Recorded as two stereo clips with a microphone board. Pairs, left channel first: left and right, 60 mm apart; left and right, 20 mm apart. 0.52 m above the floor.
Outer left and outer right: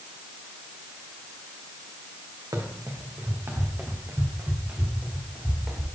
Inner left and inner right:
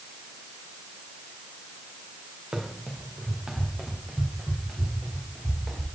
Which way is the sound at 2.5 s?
75° right (ahead or behind).